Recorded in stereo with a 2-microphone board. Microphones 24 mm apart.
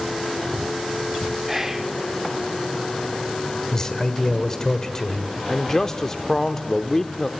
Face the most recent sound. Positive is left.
turn(degrees=20)  # may be behind; listen again after turning